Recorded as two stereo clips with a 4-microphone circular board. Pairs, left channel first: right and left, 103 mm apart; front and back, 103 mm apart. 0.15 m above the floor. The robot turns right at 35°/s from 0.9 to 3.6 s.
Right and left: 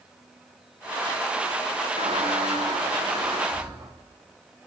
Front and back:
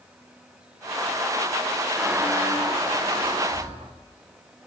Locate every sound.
2.0 s a squeak: 95° left, 3 m; by 3.9 s 155° left, 3 m